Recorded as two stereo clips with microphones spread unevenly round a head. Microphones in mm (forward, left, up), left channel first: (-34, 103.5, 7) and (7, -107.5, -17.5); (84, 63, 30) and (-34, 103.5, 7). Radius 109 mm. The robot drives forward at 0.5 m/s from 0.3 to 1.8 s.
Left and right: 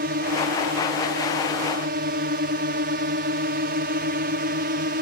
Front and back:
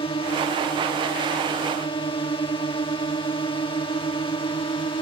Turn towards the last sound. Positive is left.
turn(degrees=-65)